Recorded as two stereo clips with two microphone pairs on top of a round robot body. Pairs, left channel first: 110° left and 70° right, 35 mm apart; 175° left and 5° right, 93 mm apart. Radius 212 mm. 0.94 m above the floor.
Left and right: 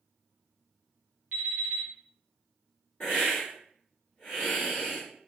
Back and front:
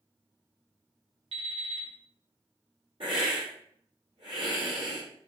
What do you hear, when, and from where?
1.3 s an alarm clock: 30° right, 0.8 m
3.0 s a hiss: 30° left, 0.6 m